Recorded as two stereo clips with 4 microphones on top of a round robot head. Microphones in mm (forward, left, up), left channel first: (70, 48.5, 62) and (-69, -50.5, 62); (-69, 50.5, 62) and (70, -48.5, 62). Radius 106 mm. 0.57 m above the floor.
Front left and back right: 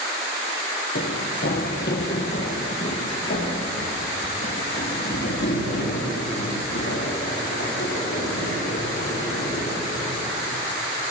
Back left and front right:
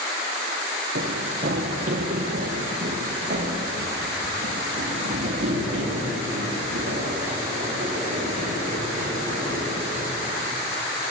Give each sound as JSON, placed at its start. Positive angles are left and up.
{"t": 0.9, "sound": "running footsteps", "azimuth_deg": 5, "distance_m": 2.0}